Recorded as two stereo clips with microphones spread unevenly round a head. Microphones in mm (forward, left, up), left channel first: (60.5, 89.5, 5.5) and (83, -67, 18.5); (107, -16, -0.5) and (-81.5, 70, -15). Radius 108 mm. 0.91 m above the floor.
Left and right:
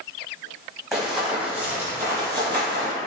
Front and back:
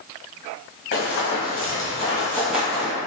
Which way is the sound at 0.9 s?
5° left.